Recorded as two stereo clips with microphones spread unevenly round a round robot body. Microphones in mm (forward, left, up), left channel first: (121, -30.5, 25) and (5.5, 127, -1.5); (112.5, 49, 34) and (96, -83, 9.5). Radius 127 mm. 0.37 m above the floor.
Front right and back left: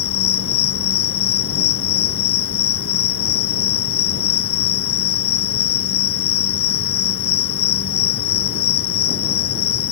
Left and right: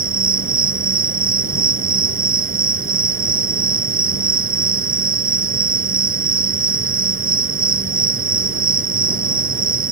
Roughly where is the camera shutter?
No camera shutter in this recording.